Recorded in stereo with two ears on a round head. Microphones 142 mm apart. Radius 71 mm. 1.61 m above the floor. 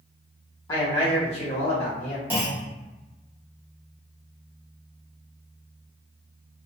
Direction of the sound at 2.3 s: 10° right (ahead or behind).